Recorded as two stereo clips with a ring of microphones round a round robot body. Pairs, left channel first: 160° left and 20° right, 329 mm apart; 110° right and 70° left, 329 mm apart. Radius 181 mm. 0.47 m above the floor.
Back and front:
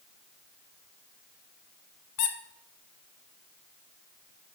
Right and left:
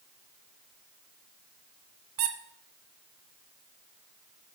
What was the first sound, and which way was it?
A squeak, 110° left.